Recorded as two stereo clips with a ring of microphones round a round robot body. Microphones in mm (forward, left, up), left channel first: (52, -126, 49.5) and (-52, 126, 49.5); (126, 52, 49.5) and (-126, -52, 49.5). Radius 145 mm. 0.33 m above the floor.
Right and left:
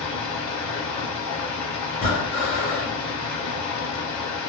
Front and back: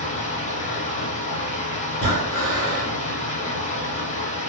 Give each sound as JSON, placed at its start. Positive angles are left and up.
{"t": 0.0, "sound": "running water", "azimuth_deg": -45, "distance_m": 0.9}
{"t": 1.9, "sound": "breathing", "azimuth_deg": -50, "distance_m": 1.3}